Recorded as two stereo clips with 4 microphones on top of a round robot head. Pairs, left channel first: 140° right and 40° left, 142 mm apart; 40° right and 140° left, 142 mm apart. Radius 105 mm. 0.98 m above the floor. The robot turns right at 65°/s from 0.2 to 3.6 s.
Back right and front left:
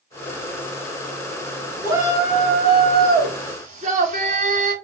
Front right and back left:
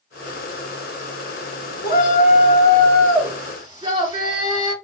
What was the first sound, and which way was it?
A shout, 40° right.